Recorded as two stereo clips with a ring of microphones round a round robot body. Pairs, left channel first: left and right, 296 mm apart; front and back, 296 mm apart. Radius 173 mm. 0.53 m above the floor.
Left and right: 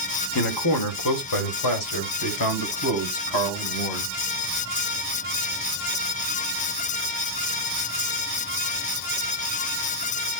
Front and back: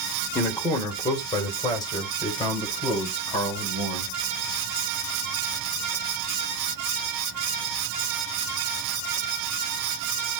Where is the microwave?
I don't hear a microwave.